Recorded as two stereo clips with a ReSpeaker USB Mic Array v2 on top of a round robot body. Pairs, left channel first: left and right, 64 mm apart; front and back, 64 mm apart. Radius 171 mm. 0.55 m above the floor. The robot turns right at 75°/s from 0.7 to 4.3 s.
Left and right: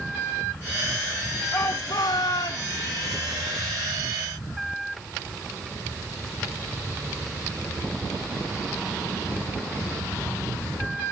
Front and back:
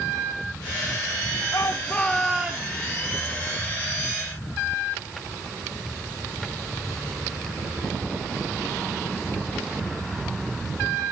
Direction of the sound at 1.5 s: 35° left.